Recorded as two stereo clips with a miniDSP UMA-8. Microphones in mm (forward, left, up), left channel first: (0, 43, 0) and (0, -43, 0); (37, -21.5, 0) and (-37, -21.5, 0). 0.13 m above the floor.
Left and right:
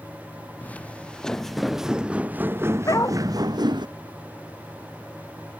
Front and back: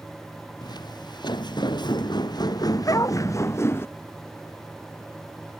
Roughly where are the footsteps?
Ahead.